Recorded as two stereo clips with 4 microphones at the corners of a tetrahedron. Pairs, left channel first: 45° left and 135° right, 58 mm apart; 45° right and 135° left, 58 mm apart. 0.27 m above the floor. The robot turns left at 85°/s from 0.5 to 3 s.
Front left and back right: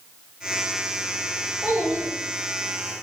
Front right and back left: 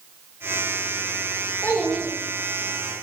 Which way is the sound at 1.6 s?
65° right.